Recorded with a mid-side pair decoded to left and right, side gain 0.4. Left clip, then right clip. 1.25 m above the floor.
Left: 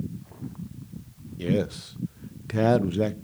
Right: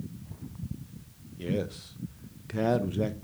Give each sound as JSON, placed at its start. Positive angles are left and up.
{"t": 1.4, "sound": "a man speaking", "azimuth_deg": 45, "distance_m": 0.7}